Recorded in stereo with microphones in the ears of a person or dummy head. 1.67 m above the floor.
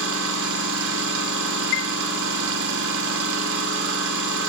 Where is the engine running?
70° right (ahead or behind), 3.5 m.